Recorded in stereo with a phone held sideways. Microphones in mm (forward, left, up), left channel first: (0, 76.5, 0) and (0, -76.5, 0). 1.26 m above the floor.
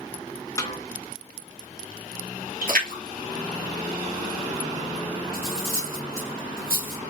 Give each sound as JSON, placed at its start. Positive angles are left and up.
{"t": 0.6, "sound": "a snare drum", "side_deg": 20, "distance_m": 0.9}
{"t": 2.6, "sound": "a splash", "side_deg": -70, "distance_m": 1.8}
{"t": 5.3, "sound": "cutlery clinking", "side_deg": -75, "distance_m": 1.9}